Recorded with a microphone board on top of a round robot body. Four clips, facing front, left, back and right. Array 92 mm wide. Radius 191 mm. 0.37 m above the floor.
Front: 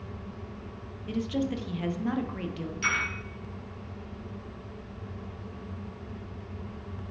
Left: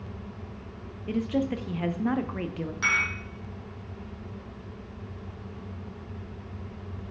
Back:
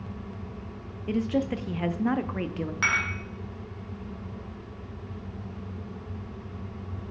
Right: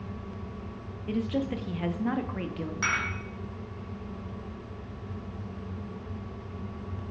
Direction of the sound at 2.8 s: 175° right.